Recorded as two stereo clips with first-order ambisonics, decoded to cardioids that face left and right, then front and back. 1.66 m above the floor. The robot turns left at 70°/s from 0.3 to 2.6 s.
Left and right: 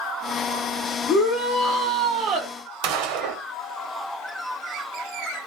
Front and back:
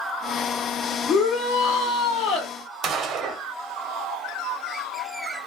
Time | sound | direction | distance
1.1 | a shout | 55° left | 0.8 m
2.8 | a gunshot | 110° right | 0.7 m